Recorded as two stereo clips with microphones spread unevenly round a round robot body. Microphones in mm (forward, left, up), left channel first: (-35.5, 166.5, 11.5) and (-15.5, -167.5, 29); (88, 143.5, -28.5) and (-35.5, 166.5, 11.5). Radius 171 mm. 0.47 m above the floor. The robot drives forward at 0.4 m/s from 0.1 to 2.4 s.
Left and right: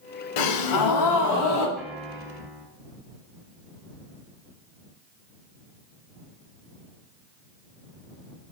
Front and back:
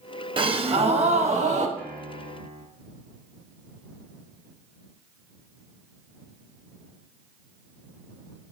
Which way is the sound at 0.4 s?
115° left.